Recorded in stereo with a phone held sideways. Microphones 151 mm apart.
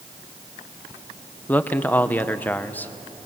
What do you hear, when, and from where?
1.5 s a man speaking: 10° left (ahead or behind), 0.8 m